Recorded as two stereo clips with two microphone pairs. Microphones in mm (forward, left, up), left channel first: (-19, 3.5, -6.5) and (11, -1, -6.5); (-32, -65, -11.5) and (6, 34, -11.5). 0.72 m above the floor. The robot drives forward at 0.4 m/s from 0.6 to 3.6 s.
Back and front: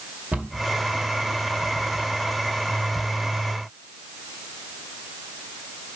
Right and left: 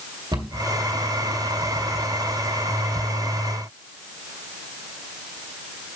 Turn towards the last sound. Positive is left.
turn(degrees=50)